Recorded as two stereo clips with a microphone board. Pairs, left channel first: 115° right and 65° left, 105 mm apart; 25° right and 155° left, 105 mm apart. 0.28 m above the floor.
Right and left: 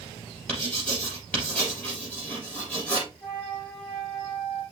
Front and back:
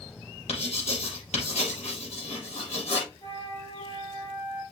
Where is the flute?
30° right, 4.5 m.